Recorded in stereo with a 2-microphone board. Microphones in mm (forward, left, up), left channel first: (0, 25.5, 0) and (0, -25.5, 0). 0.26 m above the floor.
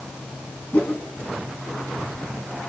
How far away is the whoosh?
About 2.5 m.